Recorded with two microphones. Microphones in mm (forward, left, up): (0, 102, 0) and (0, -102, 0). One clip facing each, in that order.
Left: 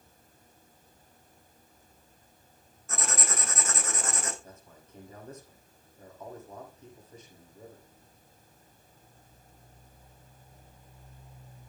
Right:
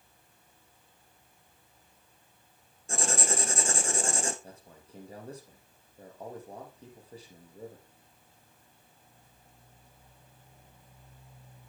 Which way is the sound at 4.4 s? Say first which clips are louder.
Right 1 dB; 35° right (ahead or behind).